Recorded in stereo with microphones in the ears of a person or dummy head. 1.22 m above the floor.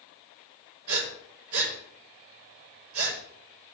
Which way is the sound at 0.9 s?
85° right.